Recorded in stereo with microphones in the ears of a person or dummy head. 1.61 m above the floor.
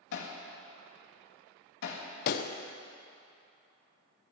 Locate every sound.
0.1 s hammering: 65° left (ahead or behind), 2.0 m
2.3 s a pop: 60° left (ahead or behind), 0.7 m